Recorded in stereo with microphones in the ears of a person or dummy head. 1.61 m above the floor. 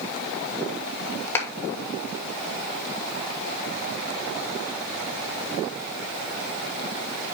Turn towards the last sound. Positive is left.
turn(degrees=15)  # may be behind; listen again after turning